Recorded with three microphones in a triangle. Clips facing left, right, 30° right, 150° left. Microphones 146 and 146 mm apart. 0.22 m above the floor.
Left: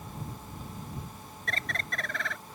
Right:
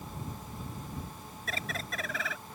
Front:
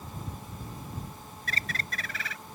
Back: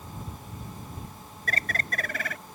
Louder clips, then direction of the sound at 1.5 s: Left 1 dB, back 5 dB; 175° right.